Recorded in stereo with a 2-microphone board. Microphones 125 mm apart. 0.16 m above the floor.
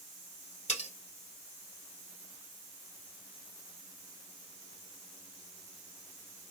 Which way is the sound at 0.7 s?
65° left (ahead or behind).